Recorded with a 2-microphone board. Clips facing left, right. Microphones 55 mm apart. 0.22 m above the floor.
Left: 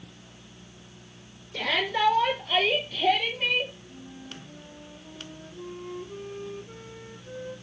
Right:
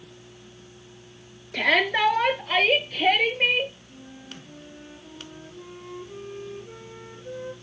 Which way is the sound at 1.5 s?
70° right (ahead or behind).